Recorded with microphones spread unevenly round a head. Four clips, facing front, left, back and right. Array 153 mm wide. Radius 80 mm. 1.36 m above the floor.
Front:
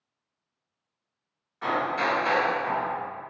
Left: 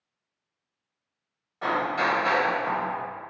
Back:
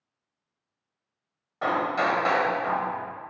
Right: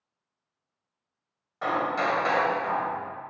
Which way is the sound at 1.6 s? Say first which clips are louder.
Left 1 dB, back 2 dB; 175° right.